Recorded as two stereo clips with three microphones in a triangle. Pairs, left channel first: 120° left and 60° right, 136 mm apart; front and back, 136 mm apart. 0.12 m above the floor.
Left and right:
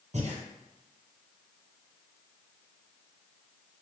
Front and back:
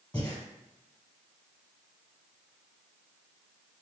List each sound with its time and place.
0.1 s breathing: 65° right, 1.2 m